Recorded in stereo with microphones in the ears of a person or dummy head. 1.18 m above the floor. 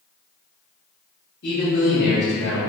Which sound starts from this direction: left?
A man speaking, at 1.4 s.